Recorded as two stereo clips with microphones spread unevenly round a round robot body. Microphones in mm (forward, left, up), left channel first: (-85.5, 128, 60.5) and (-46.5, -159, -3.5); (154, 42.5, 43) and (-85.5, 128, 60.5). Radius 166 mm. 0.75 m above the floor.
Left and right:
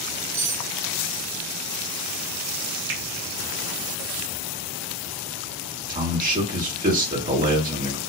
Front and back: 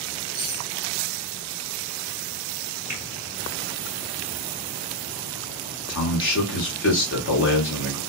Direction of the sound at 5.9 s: 35° right.